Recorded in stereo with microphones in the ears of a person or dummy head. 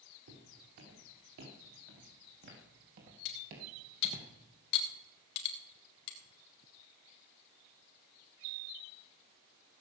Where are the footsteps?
75° right (ahead or behind), 5 m; by 4.2 s 40° right (ahead or behind), 2.5 m.